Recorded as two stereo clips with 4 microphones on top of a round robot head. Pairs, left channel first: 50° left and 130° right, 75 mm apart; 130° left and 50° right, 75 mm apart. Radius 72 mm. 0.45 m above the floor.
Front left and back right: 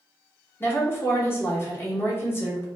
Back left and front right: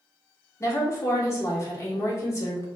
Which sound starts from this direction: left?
A woman speaking, at 0.6 s.